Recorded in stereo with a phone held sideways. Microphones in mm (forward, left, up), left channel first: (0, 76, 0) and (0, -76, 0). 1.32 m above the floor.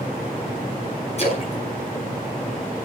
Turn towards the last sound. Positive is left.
turn(degrees=45)  # may be behind; listen again after turning